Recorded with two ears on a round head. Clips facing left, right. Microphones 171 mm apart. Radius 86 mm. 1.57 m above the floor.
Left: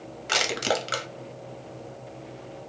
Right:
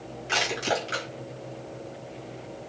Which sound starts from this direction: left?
Crushing, at 0.3 s.